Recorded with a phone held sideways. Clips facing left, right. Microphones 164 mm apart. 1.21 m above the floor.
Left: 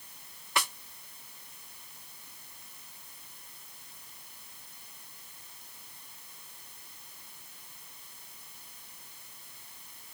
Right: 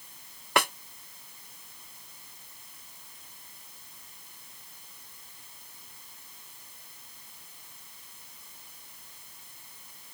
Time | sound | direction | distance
0.6 | a snare drum | 60° right (ahead or behind) | ?